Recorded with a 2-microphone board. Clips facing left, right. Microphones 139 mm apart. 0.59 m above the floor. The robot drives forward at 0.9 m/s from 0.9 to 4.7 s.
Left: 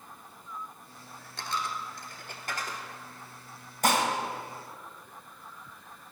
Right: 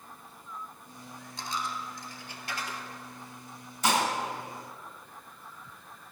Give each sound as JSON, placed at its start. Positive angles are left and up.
{"t": 1.4, "sound": "a dropped coin", "side_deg": 65, "distance_m": 1.1}
{"t": 3.8, "sound": "dishes clattering", "side_deg": 55, "distance_m": 2.0}